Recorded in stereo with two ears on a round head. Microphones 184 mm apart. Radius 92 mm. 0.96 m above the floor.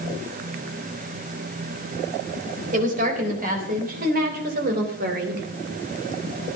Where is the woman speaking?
40° right (ahead or behind), 4 m; by 5.5 s 50° right (ahead or behind), 2.5 m.